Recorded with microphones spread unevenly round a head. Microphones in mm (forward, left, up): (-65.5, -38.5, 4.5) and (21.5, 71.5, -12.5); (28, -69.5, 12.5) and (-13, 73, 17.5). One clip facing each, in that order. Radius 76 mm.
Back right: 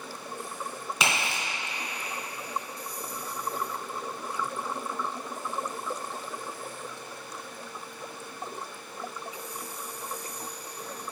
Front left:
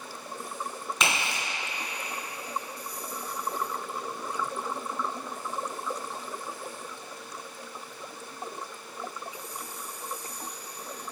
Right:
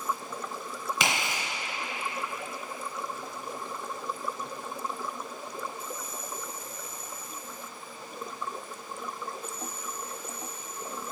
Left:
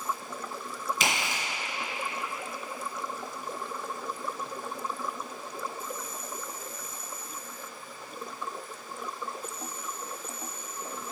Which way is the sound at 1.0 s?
50° right.